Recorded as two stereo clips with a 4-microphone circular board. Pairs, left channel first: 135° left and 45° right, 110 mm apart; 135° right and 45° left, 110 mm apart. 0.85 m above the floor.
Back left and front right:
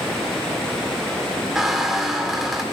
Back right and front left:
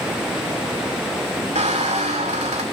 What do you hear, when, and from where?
1.6 s a squeak: 45° left, 1.7 m